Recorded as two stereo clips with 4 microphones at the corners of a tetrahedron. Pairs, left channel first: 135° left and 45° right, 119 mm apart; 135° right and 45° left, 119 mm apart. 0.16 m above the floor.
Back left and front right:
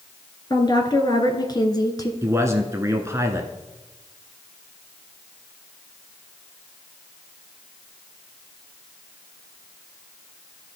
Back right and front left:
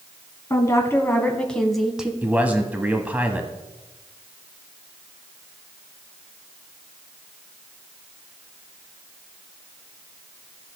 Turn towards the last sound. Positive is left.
turn(degrees=-20)